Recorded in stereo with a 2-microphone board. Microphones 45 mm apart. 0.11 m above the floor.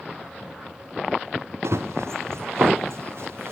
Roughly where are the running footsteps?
Right.